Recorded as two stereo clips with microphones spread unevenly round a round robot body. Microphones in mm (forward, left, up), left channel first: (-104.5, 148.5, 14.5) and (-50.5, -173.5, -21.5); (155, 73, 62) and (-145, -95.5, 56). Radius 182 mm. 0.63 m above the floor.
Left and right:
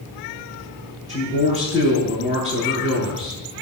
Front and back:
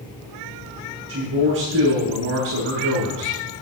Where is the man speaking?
150° left, 8 m.